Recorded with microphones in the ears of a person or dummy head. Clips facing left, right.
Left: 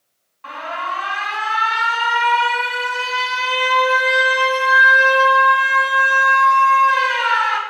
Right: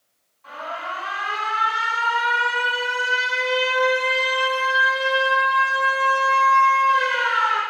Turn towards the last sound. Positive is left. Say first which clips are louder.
# left 4 dB
turn(degrees=80)